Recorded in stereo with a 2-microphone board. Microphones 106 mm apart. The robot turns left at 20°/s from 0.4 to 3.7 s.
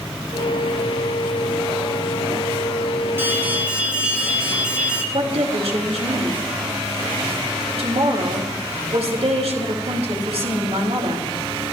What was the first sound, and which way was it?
An alarm, 20° right (ahead or behind).